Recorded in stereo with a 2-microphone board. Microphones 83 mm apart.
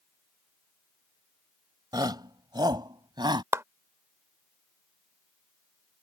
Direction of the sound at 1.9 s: 55° right (ahead or behind).